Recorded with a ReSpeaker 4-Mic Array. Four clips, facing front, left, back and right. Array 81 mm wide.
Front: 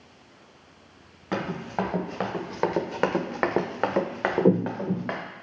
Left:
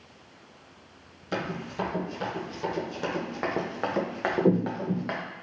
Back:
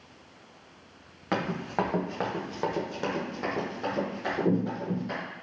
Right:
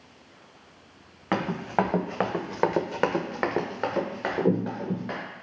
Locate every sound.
1.3 s running footsteps: 100° right, 1.1 m; by 5.2 s 20° left, 1.3 m